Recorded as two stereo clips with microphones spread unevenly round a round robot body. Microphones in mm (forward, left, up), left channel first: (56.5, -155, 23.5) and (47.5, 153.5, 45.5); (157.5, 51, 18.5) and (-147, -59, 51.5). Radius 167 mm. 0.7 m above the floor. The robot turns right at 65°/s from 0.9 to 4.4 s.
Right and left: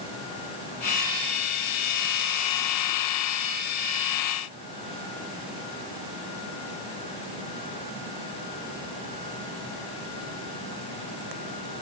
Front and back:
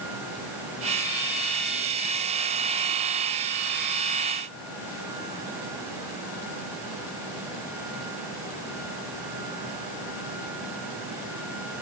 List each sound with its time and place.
Only background noise.